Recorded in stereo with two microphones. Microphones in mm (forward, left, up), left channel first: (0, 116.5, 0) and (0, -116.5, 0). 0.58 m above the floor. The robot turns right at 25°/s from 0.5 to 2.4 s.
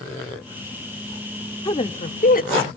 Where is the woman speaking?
25° left (ahead or behind), 1.0 m; by 2.7 s 40° left (ahead or behind), 1.0 m.